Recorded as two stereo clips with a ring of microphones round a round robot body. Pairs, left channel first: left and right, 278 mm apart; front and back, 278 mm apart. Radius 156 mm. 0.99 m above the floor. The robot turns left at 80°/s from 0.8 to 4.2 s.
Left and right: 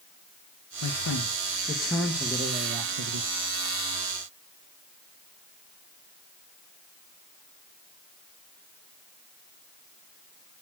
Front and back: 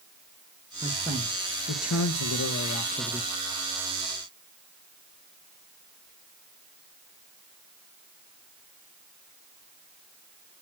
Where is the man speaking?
100° left, 1.1 m; by 3.3 s 95° right, 1.1 m.